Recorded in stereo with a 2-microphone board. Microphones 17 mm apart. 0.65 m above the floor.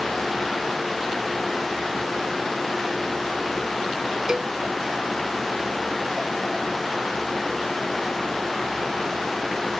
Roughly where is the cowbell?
Right.